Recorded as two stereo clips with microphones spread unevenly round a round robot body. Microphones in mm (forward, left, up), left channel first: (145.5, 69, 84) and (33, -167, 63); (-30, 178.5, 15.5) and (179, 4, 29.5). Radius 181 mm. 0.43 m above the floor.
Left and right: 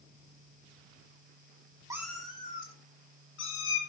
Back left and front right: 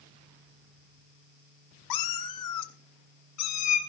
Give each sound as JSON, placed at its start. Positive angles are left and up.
{"t": 1.9, "sound": "a cat meowing", "azimuth_deg": 165, "distance_m": 0.7}